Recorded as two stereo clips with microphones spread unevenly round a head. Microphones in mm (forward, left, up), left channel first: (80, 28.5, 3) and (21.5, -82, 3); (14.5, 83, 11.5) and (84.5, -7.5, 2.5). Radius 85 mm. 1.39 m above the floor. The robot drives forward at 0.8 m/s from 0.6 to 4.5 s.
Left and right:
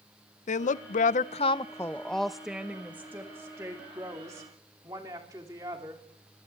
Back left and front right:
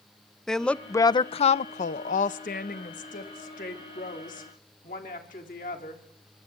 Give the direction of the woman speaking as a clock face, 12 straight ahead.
11 o'clock.